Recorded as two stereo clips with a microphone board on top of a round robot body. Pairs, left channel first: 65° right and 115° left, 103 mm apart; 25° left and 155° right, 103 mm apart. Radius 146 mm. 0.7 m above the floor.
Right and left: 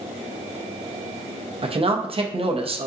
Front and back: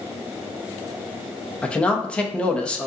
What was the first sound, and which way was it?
A man speaking, 100° left.